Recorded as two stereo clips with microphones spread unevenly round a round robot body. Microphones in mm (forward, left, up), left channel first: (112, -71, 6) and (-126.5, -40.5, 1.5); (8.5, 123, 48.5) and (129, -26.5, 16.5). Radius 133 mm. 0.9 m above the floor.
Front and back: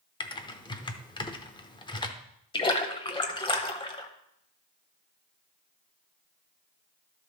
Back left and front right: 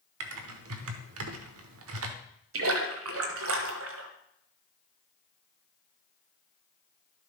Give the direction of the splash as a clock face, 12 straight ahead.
2 o'clock.